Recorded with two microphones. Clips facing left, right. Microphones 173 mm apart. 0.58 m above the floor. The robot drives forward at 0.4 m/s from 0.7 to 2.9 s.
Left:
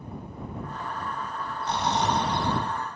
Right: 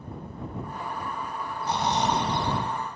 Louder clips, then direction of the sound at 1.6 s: Even; 10° right (ahead or behind).